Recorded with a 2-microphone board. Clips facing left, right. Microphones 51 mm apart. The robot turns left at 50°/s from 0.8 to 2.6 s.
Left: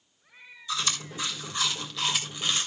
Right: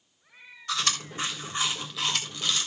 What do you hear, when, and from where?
0.7 s chewing: 55° right (ahead or behind), 3.5 m; by 2.7 s 25° left (ahead or behind), 3.5 m